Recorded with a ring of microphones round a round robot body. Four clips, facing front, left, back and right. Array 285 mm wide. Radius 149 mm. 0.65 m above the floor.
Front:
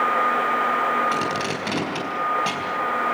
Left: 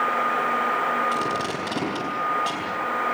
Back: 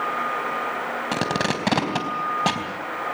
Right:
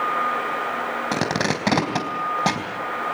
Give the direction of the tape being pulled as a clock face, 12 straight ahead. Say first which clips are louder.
Right 2 dB, even; 4 o'clock.